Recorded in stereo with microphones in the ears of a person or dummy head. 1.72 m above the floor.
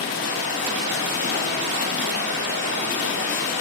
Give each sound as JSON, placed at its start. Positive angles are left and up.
{"t": 0.0, "sound": "running water", "side_deg": 35, "distance_m": 1.2}